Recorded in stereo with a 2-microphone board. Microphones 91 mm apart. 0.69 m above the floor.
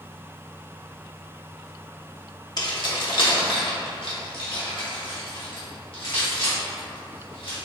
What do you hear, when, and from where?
2.6 s keys jangling: 50° left (ahead or behind), 0.7 m; by 7.5 s 85° left, 3 m